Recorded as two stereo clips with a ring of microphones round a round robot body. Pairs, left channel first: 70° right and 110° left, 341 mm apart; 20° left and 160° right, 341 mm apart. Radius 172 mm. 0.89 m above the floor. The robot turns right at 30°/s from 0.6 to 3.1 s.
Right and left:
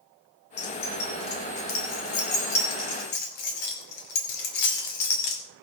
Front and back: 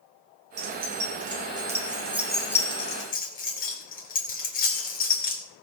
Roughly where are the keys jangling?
Behind right.